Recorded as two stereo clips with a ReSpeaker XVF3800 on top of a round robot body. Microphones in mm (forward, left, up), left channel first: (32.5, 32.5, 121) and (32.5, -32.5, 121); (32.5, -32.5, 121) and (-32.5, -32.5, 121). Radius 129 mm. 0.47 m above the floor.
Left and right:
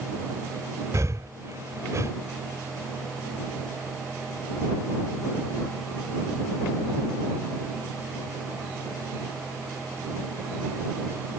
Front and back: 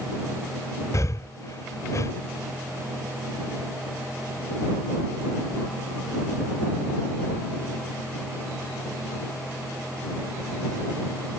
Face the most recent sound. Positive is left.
turn(degrees=-45)